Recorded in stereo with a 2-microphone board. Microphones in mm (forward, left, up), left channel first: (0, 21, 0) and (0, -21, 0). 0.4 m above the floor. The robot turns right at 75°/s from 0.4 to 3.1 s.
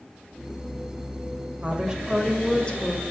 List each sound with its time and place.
1.6 s a woman speaking: 45° right, 2 m; by 3.0 s 60° left, 2 m